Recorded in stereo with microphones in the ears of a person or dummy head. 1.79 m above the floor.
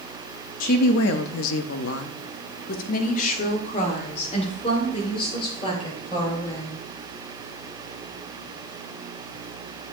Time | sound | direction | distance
0.6 | a woman speaking | 45° left (ahead or behind) | 0.7 m